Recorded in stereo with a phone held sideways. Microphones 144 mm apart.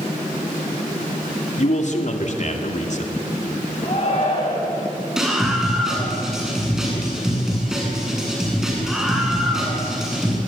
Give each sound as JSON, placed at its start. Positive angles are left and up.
{"t": 1.6, "sound": "a man speaking", "side_deg": 55, "distance_m": 2.5}
{"t": 3.8, "sound": "a shout", "side_deg": 45, "distance_m": 8.5}
{"t": 5.2, "sound": "a scream", "side_deg": -5, "distance_m": 9.0}